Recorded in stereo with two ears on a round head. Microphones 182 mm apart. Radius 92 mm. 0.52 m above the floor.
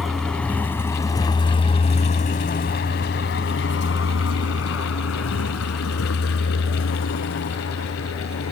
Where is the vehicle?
Centre (ahead or behind); by 8.5 s 80° left.